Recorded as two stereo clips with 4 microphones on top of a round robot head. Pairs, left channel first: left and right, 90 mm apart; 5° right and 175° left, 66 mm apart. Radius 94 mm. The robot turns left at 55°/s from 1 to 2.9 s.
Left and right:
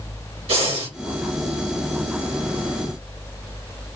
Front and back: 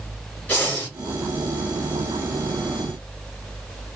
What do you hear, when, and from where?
0.5 s breathing: 80° right, 1.7 m